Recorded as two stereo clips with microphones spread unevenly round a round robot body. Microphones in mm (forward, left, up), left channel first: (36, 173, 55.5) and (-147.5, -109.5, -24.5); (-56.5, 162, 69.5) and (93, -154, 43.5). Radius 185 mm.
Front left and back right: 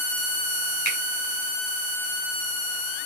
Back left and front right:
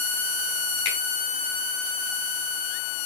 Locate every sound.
0.8 s a finger snap: 105° left, 5 m